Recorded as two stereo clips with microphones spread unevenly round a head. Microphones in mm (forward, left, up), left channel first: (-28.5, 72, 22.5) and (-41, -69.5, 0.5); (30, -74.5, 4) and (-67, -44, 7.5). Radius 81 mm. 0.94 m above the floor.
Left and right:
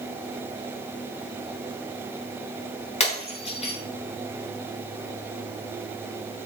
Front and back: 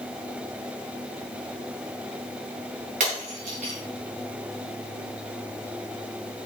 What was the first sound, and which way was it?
Breaking glass, 130° left.